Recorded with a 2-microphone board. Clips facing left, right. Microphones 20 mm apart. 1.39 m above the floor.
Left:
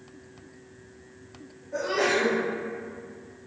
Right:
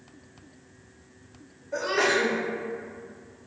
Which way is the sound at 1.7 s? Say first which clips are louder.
Right 1 dB; 35° right (ahead or behind).